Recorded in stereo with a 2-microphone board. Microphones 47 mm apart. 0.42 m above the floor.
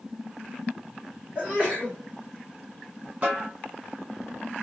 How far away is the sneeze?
About 1.5 m.